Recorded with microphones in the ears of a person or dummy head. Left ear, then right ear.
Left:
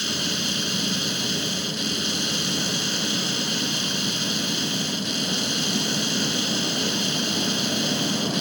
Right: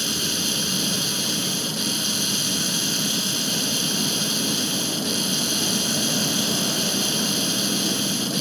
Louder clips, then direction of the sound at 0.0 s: Right 1 dB; 5° left (ahead or behind).